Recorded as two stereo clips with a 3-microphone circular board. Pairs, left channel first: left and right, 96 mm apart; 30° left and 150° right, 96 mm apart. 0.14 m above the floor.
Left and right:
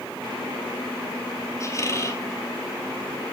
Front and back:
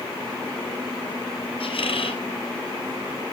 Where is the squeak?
35° left, 2.5 m.